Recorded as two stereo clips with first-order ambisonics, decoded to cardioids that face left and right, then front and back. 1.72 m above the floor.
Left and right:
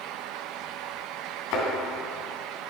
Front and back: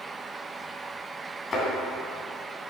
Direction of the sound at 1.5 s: 70° left.